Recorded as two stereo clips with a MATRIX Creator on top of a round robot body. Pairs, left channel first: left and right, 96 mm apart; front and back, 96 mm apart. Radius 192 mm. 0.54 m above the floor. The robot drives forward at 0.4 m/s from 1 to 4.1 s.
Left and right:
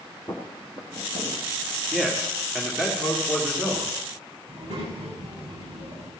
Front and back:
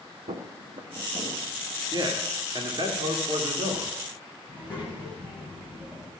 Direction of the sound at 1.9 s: 170° right.